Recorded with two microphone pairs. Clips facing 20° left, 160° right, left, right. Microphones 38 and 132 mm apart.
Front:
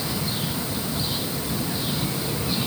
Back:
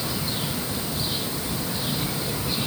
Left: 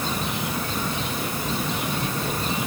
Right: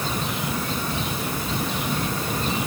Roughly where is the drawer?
No drawer in this recording.